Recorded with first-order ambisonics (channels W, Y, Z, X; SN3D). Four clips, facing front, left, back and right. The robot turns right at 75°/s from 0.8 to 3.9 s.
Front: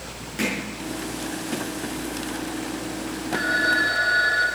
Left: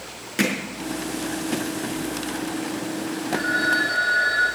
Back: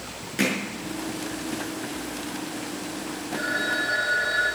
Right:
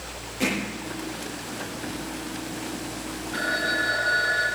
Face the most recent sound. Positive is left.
turn(degrees=-10)